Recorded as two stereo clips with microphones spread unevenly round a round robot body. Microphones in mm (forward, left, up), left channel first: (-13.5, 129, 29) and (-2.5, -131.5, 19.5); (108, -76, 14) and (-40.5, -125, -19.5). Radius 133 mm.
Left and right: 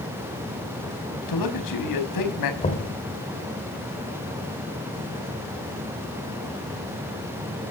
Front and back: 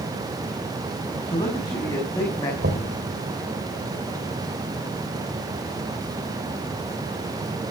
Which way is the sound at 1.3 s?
95° left.